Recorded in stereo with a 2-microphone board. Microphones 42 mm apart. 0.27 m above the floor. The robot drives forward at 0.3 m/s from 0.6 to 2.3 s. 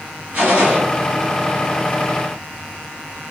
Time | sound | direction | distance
0.3 | a gunshot | 45° right (ahead or behind) | 1.5 m